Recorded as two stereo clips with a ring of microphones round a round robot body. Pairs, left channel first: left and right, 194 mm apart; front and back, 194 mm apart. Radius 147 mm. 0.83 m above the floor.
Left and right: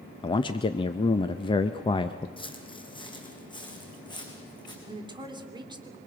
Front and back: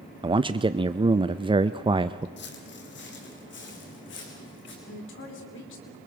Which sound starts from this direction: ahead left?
Footsteps, at 2.4 s.